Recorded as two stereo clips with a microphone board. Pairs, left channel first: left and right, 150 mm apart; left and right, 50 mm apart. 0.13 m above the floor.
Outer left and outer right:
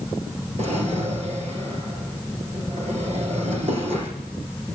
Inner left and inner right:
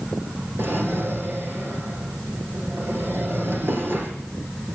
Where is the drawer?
45° right (ahead or behind), 2.5 m.